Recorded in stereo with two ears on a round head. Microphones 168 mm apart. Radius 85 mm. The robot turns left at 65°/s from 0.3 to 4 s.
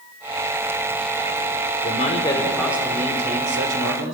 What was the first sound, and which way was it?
A man speaking, 50° left.